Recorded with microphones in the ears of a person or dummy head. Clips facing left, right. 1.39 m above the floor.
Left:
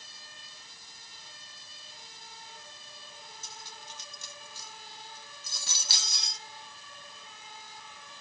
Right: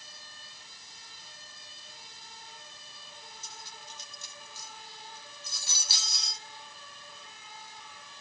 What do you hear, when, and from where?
3.4 s cutlery clinking: 60° left (ahead or behind), 1.2 m